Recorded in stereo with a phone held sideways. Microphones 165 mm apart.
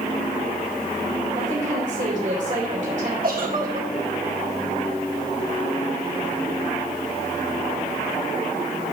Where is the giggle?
65° right (ahead or behind), 1.6 m.